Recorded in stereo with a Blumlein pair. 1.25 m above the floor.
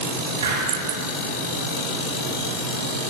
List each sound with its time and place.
0.4 s a hiss: 65° right, 5 m